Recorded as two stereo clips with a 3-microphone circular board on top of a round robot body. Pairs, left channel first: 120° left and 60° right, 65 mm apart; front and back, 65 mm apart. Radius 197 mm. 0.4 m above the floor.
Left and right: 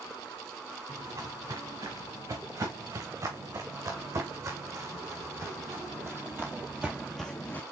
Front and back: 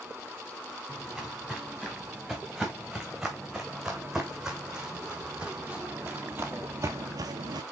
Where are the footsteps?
90° right, 4 m; by 7.6 s 175° right, 0.7 m.